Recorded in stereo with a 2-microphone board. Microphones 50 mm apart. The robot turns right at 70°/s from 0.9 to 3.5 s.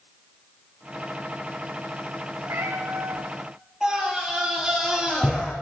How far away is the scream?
About 6 m.